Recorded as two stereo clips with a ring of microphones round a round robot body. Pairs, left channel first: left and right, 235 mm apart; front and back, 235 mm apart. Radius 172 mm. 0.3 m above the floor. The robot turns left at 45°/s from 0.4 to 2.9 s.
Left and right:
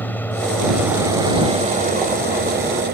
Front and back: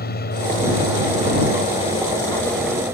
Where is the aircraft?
10° left; by 2.9 s 100° right.